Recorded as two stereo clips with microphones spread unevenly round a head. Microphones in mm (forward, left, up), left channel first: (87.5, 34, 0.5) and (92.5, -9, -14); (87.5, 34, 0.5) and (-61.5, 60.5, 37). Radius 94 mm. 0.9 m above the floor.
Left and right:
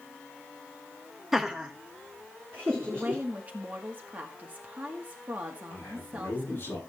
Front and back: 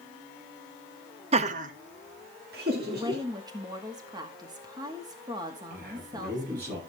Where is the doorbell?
No doorbell in this recording.